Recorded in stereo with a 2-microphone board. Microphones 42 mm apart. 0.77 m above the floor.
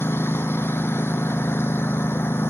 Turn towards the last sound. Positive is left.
turn(degrees=85)